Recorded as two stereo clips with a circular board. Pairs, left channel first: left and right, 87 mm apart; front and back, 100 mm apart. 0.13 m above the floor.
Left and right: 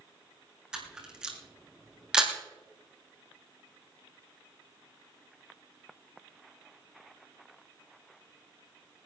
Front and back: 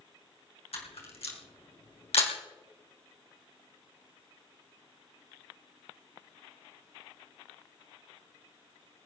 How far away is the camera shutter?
About 3.5 m.